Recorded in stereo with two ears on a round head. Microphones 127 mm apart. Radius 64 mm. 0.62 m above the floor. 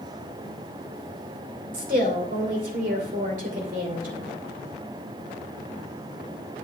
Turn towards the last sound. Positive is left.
turn(degrees=-60)  # may be behind; listen again after turning